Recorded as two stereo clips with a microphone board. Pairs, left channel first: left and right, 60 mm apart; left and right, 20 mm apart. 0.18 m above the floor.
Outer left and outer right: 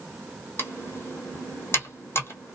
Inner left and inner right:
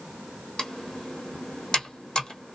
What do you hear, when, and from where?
0.6 s typing on a keyboard: 45° left (ahead or behind), 1.1 m